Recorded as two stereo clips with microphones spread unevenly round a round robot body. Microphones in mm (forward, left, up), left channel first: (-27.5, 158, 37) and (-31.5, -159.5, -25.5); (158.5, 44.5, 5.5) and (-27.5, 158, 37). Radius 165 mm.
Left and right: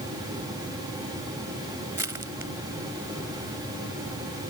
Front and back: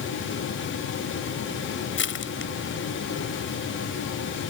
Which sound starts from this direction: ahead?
Crushing, at 2.0 s.